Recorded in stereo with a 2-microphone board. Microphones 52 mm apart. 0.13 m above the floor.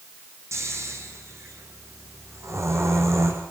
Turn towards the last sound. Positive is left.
turn(degrees=-65)  # may be behind; listen again after turning